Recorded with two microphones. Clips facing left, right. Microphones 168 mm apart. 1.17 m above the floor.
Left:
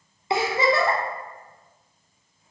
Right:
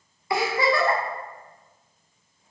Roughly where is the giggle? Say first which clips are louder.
Left 1 dB; left.